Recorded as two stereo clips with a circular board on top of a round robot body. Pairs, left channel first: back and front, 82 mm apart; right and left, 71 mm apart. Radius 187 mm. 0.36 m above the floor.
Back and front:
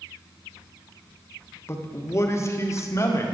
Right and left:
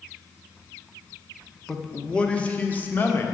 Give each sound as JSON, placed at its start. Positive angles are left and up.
{"t": 1.7, "sound": "a man speaking", "azimuth_deg": -170, "distance_m": 1.5}